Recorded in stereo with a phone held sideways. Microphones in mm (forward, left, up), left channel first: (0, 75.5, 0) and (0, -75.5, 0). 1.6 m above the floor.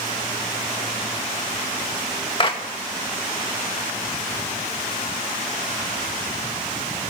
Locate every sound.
2.4 s a clap: 35° left (ahead or behind), 2 m